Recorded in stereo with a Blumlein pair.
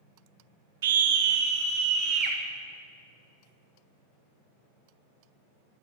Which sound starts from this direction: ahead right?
A scream, at 0.8 s.